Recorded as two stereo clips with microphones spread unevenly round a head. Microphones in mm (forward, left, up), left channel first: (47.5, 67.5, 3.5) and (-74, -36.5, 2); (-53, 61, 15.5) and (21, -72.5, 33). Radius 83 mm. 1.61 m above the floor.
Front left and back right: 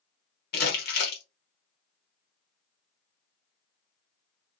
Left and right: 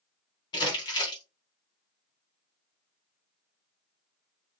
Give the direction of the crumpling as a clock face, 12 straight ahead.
10 o'clock.